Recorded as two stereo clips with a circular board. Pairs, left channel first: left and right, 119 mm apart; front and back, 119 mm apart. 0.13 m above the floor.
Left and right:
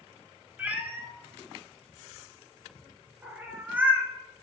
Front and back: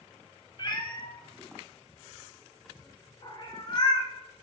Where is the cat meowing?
20° right, 1.0 m.